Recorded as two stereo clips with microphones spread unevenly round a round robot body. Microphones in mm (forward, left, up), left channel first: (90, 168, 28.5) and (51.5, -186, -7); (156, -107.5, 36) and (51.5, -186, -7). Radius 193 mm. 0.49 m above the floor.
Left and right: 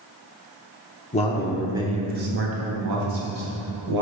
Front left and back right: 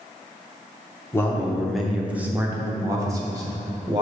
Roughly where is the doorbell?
No doorbell in this recording.